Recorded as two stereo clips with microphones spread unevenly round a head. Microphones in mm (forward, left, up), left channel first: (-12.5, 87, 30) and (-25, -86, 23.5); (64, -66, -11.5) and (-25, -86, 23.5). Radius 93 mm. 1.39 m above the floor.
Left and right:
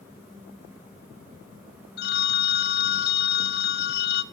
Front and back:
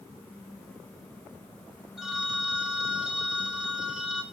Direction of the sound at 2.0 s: 110° left.